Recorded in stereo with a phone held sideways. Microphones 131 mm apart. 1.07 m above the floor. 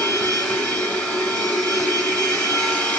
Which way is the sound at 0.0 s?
5° left (ahead or behind).